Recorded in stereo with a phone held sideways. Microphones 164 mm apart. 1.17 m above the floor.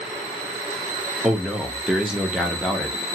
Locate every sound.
1.2 s a man speaking: 5° right (ahead or behind), 0.8 m